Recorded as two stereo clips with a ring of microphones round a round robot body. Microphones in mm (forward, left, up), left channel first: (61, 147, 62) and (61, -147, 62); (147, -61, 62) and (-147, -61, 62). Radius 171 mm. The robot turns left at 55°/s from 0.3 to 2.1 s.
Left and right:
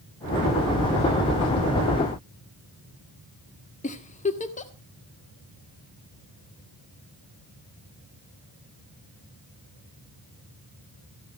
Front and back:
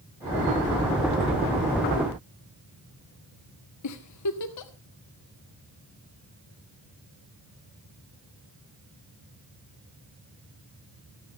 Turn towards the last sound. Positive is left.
turn(degrees=25)